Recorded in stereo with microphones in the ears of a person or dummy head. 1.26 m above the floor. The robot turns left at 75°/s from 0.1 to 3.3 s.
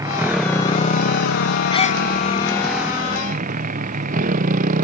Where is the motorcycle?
160° right; by 4.8 s 40° right.